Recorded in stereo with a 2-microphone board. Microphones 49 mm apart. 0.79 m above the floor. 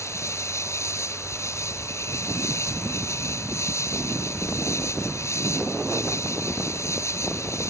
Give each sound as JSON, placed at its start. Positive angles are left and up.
{"t": 0.0, "sound": "an insect", "side_deg": 80}